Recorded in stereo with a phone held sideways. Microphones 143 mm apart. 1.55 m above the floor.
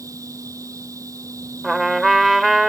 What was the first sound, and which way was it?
A machine running, 25° right (ahead or behind).